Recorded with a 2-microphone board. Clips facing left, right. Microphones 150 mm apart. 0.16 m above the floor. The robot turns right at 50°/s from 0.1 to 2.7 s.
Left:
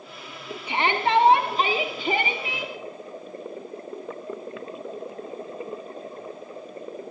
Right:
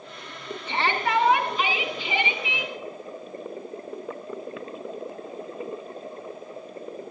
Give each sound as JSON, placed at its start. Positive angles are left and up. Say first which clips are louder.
{"t": 0.7, "sound": "a shout", "louder": "left 3 dB", "azimuth_deg": 15, "distance_m": 1.6}